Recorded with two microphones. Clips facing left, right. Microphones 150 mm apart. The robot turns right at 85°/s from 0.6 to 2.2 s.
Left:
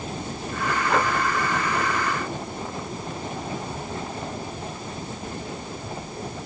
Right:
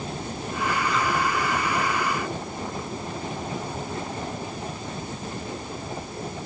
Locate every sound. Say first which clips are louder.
0.9 s breathing: left 3 dB; 65° left (ahead or behind); by 1.1 s 50° left (ahead or behind)